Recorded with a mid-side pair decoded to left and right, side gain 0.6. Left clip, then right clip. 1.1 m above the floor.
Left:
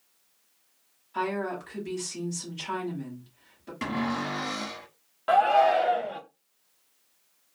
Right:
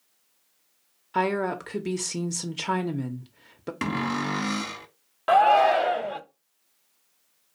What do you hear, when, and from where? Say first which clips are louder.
1.1 s a woman speaking: right 5 dB; 65° right, 0.6 m
3.8 s a cupboard door: right 2 dB; 40° right, 1.0 m
5.3 s a shout: right 3 dB; 25° right, 0.7 m